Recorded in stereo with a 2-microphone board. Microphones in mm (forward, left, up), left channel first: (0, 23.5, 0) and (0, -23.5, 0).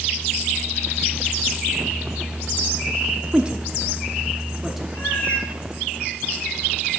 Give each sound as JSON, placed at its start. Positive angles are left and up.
{"t": 3.3, "sound": "a woman speaking", "side_deg": -25, "distance_m": 0.6}
{"t": 4.9, "sound": "a cat meowing", "side_deg": 35, "distance_m": 4.5}